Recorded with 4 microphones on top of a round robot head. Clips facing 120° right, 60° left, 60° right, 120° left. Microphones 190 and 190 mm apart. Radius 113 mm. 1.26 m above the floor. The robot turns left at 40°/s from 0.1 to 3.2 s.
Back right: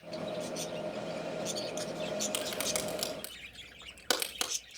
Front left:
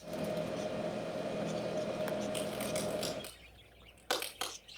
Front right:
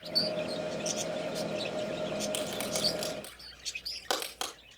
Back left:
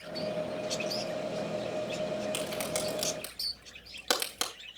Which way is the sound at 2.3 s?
135° right.